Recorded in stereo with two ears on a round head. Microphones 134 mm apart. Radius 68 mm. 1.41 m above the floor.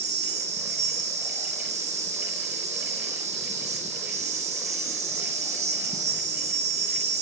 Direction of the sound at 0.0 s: 50° right (ahead or behind).